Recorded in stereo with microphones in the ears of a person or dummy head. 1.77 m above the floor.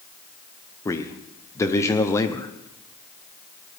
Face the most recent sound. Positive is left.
turn(degrees=15)  # may be behind; listen again after turning